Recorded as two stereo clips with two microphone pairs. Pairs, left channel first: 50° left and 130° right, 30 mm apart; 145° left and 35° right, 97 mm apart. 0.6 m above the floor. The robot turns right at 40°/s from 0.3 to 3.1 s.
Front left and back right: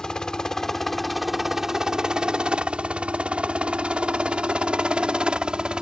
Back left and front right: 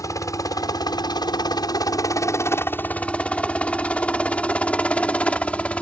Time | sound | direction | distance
0.0 | a helicopter | 105° left | ?